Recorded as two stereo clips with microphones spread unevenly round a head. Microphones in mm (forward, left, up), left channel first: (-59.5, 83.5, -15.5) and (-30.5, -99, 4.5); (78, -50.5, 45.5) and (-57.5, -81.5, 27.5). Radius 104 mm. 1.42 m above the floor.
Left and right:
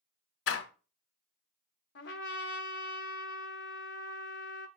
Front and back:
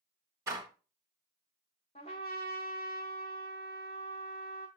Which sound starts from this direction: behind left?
A door slam, at 0.5 s.